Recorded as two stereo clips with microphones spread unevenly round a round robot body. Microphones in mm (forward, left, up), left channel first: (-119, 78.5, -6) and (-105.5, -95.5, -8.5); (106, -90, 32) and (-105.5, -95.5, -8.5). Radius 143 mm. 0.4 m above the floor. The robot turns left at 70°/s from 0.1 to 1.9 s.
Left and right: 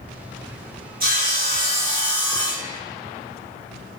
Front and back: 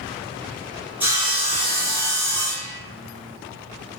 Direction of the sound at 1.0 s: 105° right.